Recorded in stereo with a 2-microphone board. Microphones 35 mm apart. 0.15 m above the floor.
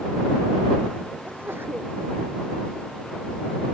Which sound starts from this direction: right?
A sneeze, at 1.2 s.